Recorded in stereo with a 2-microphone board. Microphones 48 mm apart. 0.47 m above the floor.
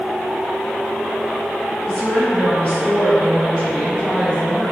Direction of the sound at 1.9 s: 25° left (ahead or behind).